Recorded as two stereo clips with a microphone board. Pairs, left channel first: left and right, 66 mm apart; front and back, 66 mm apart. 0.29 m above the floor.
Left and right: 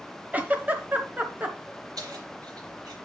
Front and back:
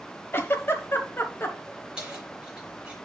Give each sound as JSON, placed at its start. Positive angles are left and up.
{"t": 0.3, "sound": "a giggle", "azimuth_deg": -35, "distance_m": 1.1}
{"t": 2.0, "sound": "keys jangling", "azimuth_deg": -105, "distance_m": 4.0}